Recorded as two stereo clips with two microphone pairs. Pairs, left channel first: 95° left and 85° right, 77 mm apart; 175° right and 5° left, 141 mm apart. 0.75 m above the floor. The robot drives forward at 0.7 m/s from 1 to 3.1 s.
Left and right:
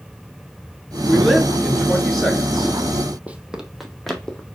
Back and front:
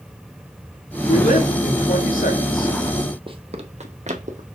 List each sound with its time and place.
1.1 s a woman speaking: straight behind, 2.5 m
3.3 s running footsteps: 20° right, 0.9 m; by 4.5 s 20° left, 1.5 m